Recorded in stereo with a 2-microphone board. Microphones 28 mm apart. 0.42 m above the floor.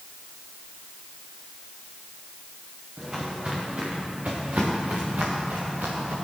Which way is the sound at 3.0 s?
25° right (ahead or behind).